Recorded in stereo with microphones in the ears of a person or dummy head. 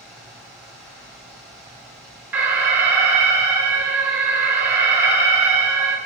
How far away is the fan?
About 2.5 m.